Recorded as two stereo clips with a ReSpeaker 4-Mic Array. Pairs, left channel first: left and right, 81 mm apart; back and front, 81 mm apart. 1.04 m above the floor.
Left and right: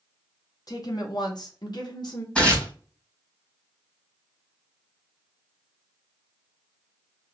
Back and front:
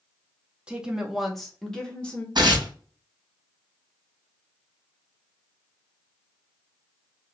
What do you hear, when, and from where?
0.7 s a woman speaking: 75° left, 1.1 m; by 2.2 s 105° left, 1.6 m
2.4 s tearing paper: 15° left, 1.7 m